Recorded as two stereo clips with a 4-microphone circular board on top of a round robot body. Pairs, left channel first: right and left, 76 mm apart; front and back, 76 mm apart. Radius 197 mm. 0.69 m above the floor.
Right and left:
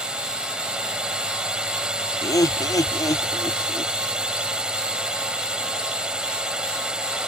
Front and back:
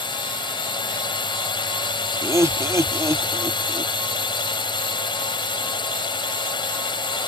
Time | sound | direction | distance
0.0 | a drone | 10° left | ?
2.2 | laughter | 130° right | ?